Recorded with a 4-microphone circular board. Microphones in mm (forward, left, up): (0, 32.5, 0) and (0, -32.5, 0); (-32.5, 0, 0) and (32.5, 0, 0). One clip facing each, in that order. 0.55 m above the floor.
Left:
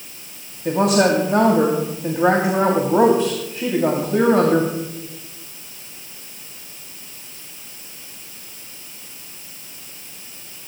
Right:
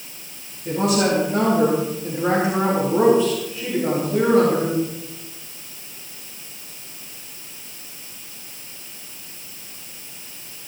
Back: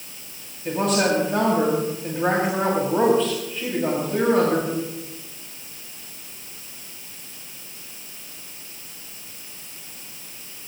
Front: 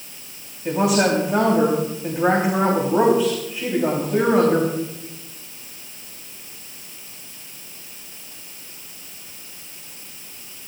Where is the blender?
No blender in this recording.